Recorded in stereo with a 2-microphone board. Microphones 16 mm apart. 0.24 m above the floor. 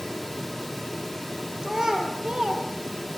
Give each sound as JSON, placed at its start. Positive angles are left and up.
{"t": 1.6, "sound": "a child speaking", "side_deg": -55, "distance_m": 4.5}